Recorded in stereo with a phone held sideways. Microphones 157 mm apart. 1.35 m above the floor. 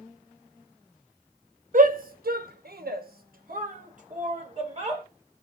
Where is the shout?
60° right (ahead or behind), 0.9 m; by 5.0 s 40° right (ahead or behind), 1.6 m.